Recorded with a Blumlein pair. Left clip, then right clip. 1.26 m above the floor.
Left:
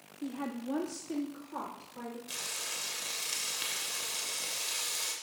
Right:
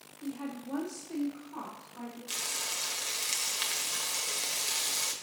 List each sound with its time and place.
0.2 s a woman speaking: 70° left, 0.8 m; by 2.2 s 5° left, 2.5 m
2.3 s frying: 65° right, 1.1 m